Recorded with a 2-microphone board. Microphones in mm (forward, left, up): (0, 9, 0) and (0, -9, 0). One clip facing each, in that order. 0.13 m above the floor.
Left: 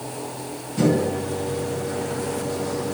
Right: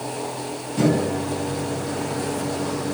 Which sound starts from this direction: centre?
A microwave, at 0.8 s.